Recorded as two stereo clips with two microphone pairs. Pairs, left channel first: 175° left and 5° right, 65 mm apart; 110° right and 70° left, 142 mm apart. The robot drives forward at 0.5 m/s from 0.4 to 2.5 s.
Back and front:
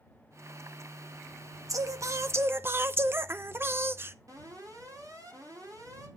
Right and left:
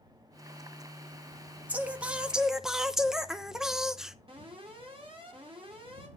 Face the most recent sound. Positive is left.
turn(degrees=20)